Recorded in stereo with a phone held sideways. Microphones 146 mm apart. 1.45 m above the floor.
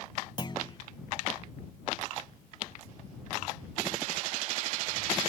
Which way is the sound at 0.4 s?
30° left (ahead or behind).